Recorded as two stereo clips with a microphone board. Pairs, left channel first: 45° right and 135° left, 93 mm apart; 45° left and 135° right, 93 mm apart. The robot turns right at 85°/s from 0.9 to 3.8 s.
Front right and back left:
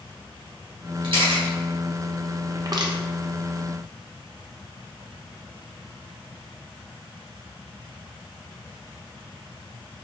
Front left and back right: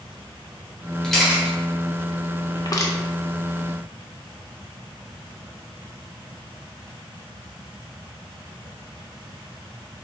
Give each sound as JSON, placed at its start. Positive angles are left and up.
{"t": 1.0, "sound": "a camera shutter", "azimuth_deg": 125, "distance_m": 1.2}
{"t": 2.5, "sound": "crushing", "azimuth_deg": 75, "distance_m": 0.5}